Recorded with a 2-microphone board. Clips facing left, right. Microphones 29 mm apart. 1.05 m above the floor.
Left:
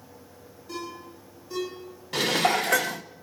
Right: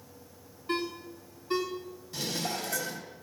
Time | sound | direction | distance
0.7 | a ringtone | 45° right (ahead or behind) | 7.5 m
2.1 | dishes clattering | 80° left | 0.8 m